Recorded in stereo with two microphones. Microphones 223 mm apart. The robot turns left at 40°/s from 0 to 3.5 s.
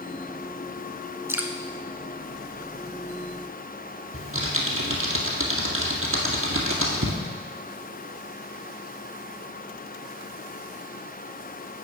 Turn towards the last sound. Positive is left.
turn(degrees=-70)  # may be behind; listen again after turning